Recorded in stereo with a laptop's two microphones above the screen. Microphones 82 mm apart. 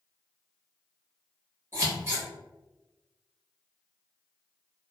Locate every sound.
1.7 s scissors: 25° right (ahead or behind), 1.2 m